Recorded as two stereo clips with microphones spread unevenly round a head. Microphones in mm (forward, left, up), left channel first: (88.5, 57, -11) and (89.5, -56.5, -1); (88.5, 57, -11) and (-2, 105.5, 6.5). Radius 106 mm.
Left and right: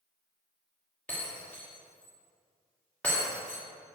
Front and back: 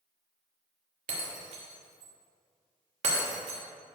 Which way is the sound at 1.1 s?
175° left.